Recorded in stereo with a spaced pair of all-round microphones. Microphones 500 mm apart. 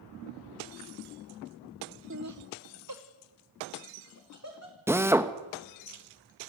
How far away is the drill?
About 0.9 m.